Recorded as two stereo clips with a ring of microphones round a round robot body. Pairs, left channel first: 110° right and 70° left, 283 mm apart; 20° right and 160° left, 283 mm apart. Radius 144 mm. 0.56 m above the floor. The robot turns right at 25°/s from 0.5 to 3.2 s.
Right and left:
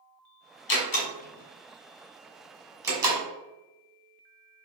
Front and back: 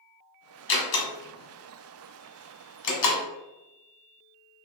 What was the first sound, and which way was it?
A door slam, 65° right.